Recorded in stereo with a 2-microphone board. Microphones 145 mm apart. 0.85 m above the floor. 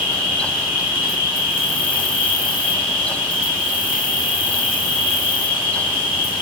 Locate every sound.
0.0 s an insect: 75° left (ahead or behind), 0.9 m